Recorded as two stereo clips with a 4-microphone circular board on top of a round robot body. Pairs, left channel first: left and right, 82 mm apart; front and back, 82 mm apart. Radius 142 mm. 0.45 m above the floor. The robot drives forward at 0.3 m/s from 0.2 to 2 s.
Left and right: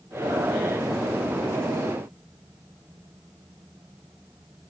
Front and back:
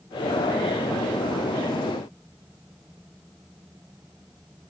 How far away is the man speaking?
I don't hear a man speaking.